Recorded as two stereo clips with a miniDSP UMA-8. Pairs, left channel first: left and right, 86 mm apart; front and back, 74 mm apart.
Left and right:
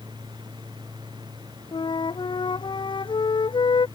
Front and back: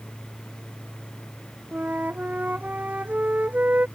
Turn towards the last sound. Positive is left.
turn(degrees=110)